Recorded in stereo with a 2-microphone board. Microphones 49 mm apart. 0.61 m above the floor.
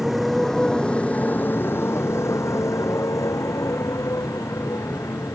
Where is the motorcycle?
Centre (ahead or behind); by 5.4 s 75° left (ahead or behind).